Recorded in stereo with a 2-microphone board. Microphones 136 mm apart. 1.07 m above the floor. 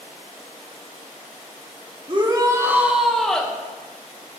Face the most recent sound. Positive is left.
turn(degrees=10)  # may be behind; listen again after turning